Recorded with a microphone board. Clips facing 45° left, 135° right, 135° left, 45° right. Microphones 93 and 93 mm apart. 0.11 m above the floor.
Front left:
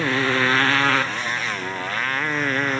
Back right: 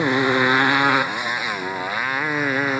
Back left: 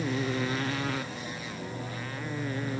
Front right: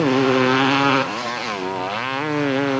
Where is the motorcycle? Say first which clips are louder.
Back right 3 dB, front right 14 dB; 60° right; by 2.8 s 55° right.